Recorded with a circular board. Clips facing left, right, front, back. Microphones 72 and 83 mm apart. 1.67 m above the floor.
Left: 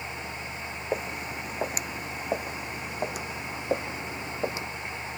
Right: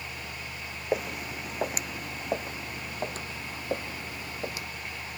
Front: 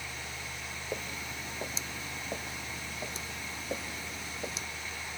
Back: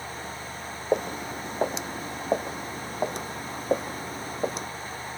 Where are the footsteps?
175° right; by 4.7 s 150° left.